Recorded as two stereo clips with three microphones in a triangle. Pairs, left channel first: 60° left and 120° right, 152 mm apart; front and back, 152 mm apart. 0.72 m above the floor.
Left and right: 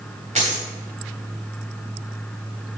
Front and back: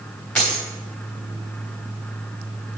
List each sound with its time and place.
0.3 s a dropped coin: 85° right, 3 m